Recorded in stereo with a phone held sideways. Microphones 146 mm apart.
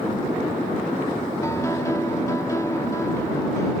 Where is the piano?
20° left (ahead or behind).